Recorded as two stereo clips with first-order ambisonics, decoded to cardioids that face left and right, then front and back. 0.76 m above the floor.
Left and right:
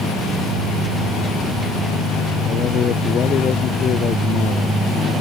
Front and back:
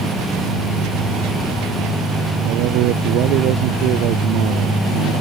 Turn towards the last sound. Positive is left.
turn(degrees=145)